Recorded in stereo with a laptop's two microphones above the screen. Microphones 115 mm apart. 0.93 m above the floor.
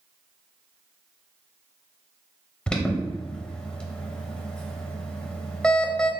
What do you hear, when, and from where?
2.7 s an alarm: 10° left (ahead or behind), 0.6 m